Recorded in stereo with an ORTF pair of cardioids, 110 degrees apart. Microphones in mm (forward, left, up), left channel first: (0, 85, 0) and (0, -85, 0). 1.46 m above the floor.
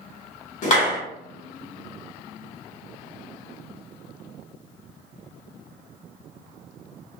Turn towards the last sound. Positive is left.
turn(degrees=45)